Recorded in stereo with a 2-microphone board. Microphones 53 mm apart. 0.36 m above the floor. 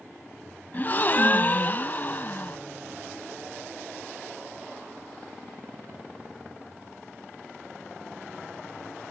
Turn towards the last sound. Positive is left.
turn(degrees=35)  # may be behind; listen again after turning